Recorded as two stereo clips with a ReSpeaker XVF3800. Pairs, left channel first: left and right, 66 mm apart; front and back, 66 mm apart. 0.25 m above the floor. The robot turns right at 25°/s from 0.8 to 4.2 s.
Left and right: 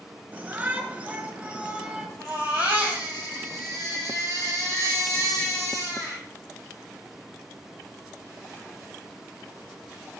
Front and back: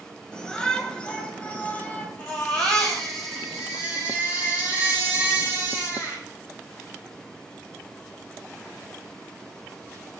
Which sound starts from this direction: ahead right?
A shout, at 0.3 s.